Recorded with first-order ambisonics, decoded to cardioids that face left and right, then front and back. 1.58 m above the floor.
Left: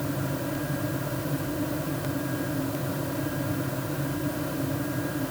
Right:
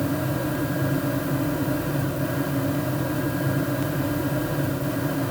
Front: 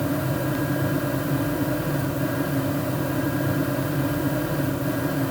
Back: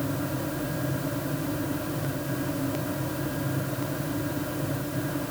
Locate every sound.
Only background noise.